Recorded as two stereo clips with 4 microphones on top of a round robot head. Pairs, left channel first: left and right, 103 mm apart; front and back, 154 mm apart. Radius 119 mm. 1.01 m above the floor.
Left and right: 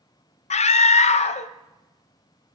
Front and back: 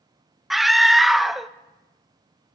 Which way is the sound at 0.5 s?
90° left.